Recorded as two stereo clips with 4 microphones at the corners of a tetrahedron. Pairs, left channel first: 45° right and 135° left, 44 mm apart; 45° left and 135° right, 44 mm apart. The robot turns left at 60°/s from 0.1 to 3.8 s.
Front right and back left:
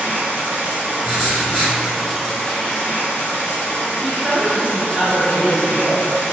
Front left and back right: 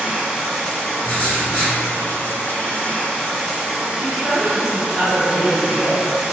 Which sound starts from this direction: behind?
Running water, at 0.0 s.